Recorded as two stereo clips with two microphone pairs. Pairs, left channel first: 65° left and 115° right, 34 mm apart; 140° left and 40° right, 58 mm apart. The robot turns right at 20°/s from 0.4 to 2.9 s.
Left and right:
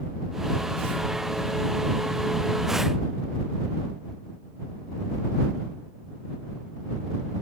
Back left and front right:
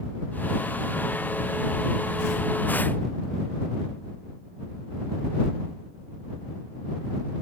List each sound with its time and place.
Only background noise.